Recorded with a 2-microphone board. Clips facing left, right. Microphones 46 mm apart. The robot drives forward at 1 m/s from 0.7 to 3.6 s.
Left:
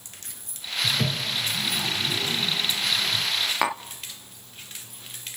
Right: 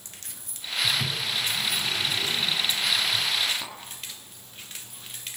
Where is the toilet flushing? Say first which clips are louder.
Left 1 dB; 65° left (ahead or behind), 2.5 m; by 3.2 s 40° left (ahead or behind), 3.5 m.